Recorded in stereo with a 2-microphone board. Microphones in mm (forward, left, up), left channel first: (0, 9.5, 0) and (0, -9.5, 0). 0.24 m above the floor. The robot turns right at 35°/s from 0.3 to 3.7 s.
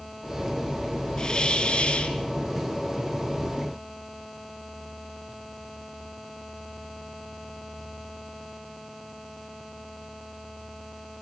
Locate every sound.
1.2 s a hiss: 35° left, 2.5 m; by 2.2 s 70° left, 2.5 m